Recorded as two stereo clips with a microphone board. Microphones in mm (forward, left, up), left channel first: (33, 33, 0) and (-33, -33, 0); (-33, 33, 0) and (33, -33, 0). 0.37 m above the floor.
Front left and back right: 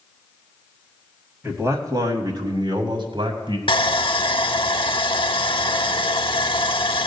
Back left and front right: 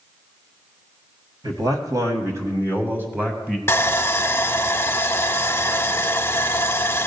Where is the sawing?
70° left, 0.5 m.